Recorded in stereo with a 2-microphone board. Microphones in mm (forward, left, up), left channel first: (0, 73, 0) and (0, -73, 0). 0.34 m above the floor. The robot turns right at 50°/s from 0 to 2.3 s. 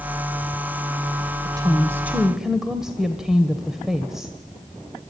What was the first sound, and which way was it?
A woman speaking, 50° right.